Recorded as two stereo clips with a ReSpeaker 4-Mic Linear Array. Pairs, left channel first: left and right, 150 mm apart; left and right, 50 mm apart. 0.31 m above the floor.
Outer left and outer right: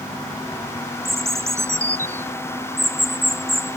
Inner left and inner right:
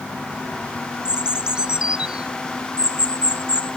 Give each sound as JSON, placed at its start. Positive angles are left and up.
{"t": 1.1, "sound": "a bird", "side_deg": -20}